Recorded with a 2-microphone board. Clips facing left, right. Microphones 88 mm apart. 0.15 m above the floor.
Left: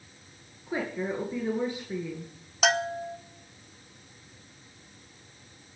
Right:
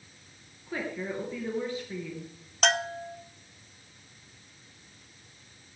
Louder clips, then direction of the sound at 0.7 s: Left 3 dB; 20° left (ahead or behind).